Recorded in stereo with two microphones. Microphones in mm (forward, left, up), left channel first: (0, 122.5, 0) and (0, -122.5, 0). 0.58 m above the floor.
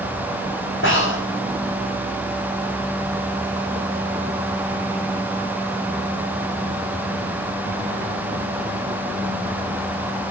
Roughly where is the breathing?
Left.